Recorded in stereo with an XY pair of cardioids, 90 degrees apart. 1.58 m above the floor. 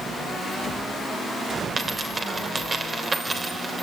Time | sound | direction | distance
1.8 | a dropped coin | 35° right | 3 m